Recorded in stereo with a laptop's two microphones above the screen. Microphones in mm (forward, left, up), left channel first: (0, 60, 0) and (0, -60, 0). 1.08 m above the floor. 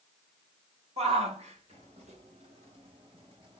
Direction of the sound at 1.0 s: 60° right (ahead or behind).